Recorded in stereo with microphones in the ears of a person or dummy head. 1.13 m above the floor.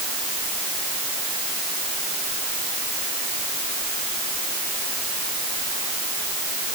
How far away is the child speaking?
No child speaking in this recording.